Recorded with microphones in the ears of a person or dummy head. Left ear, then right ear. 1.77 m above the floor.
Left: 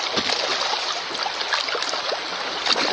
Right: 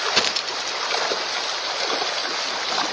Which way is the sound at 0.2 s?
20° right (ahead or behind).